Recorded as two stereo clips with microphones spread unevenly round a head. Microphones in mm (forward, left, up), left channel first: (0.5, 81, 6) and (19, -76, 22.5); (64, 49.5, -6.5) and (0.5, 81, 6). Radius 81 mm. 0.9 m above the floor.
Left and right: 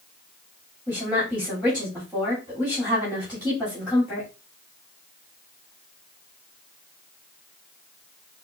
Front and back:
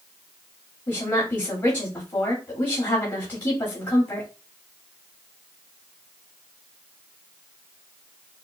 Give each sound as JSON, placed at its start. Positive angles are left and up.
{"t": 0.9, "sound": "a woman speaking", "azimuth_deg": 0, "distance_m": 2.0}